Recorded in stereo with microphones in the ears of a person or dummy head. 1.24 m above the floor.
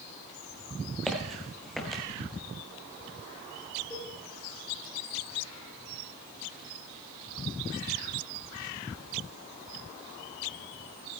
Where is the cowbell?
15° left (ahead or behind), 2.5 m.